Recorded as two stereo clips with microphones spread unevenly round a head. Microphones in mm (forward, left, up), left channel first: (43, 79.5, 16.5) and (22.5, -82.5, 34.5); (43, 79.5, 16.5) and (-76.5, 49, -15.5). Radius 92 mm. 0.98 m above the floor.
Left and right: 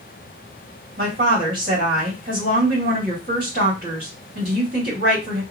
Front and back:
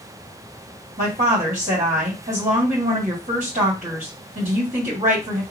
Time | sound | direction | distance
1.0 | a woman speaking | 140° right | 2.0 m